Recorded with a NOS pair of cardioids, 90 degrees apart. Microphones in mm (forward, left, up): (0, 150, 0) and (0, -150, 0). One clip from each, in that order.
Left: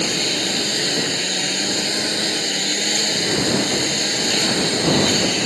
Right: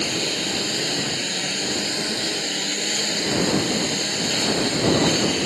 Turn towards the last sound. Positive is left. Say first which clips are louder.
# left 3 dB
turn(degrees=25)